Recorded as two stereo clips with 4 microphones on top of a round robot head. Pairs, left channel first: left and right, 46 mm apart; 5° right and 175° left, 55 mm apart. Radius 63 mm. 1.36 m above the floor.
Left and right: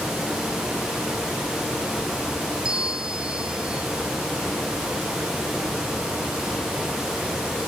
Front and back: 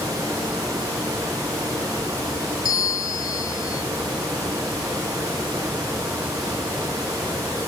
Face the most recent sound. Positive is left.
turn(degrees=-15)